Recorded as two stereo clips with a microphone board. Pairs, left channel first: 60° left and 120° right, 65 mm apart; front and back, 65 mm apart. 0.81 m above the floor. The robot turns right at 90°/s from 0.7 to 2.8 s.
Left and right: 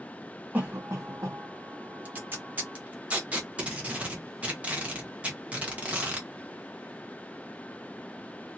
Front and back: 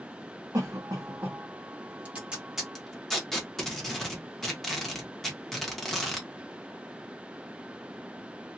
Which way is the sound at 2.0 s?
145° right.